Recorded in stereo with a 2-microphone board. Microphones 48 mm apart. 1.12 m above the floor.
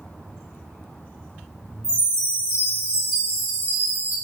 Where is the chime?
50° right (ahead or behind), 1.3 m.